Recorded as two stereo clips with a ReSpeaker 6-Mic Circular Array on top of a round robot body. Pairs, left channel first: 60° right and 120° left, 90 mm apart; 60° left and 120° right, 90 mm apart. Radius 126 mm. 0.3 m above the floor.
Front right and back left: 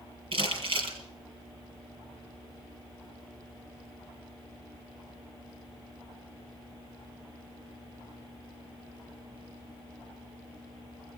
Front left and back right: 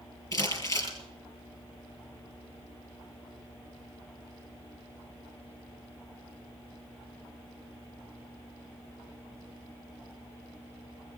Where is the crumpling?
105° left, 5 m.